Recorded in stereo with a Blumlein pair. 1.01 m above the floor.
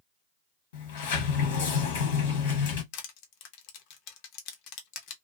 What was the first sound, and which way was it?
A sliding door, 55° left.